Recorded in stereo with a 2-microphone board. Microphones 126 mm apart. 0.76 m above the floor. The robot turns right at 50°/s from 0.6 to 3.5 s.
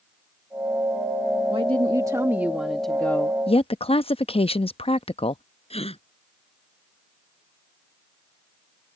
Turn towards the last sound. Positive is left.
turn(degrees=50)  # may be behind; listen again after turning